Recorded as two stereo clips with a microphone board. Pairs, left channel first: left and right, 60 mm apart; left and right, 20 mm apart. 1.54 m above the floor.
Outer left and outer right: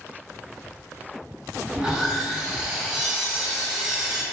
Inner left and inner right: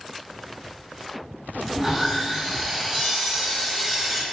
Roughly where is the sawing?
Centre.